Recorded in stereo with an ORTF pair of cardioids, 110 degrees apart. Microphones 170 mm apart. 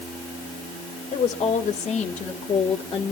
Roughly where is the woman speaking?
Ahead left.